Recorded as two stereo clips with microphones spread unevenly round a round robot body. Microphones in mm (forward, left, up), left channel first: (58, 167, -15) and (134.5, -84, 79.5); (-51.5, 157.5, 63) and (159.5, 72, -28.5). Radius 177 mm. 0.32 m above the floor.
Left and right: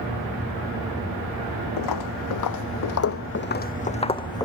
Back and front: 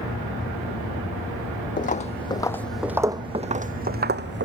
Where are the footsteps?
110° left, 1.0 m; by 4.5 s 25° left, 1.3 m.